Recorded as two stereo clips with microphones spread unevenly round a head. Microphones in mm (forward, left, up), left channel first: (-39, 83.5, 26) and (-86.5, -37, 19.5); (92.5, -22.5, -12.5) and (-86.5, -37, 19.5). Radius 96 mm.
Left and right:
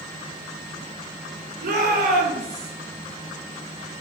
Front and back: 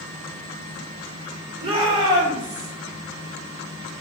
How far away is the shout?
About 4 m.